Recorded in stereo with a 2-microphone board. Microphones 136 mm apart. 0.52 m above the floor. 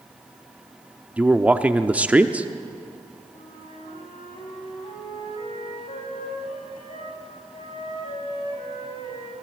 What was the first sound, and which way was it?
A man speaking, 10° right (ahead or behind).